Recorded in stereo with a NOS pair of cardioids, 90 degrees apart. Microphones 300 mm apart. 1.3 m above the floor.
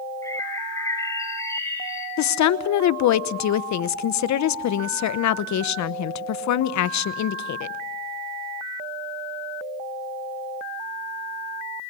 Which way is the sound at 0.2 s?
10° left.